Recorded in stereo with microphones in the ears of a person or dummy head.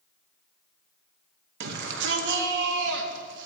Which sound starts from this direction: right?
A shout, at 1.6 s.